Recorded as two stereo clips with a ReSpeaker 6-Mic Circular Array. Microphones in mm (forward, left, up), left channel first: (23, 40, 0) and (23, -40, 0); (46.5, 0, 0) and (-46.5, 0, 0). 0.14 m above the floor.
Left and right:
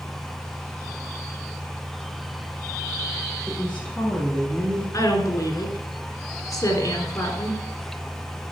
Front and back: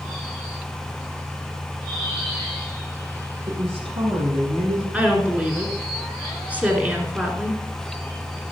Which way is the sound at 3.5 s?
165° left.